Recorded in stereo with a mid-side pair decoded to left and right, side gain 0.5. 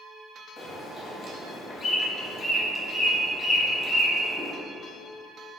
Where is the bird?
40° left, 0.8 m.